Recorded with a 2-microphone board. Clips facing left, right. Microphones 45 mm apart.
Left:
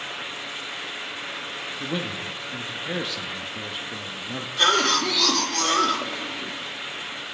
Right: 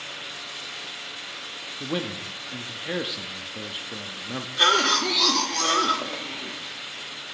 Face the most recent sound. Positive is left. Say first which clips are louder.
# even
turn(degrees=-5)  # may be behind; listen again after turning